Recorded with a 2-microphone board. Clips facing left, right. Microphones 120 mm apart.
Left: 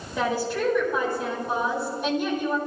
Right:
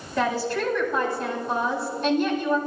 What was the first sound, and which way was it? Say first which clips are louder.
A woman speaking: right 1 dB; 10° left (ahead or behind).